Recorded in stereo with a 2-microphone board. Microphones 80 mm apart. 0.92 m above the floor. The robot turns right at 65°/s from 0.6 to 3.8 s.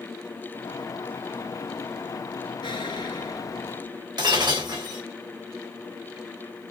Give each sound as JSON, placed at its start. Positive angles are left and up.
{"t": 2.6, "sound": "an explosion", "azimuth_deg": 85, "distance_m": 2.5}
{"t": 4.2, "sound": "breaking glass", "side_deg": -65, "distance_m": 2.5}